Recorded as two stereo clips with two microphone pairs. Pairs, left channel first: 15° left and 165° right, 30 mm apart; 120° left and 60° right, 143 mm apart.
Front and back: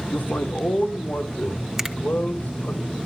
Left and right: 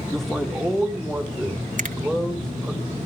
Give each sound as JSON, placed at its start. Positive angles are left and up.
{"t": 0.1, "sound": "a man speaking", "azimuth_deg": 30, "distance_m": 3.5}
{"t": 1.8, "sound": "a finger snap", "azimuth_deg": -85, "distance_m": 1.8}